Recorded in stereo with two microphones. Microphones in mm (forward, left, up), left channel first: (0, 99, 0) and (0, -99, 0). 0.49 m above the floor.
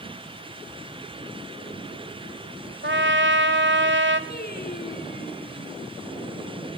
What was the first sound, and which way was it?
A trumpet, 65° right (ahead or behind).